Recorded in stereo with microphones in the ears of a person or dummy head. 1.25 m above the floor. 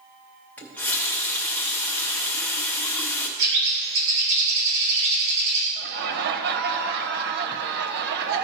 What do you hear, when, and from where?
0.6 s a running tap: 10° left (ahead or behind), 0.8 m
3.4 s a bird: 65° right (ahead or behind), 2.5 m
5.8 s laughter: 60° right (ahead or behind), 1.0 m